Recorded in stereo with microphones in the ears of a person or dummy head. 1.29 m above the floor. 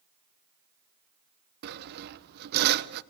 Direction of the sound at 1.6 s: 50° right (ahead or behind).